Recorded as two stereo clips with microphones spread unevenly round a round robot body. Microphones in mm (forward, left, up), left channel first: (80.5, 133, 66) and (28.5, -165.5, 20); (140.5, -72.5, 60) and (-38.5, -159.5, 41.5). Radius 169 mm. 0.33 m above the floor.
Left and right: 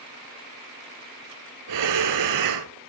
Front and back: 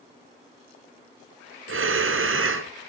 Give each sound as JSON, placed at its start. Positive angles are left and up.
{"t": 1.7, "sound": "breathing", "azimuth_deg": -135, "distance_m": 1.1}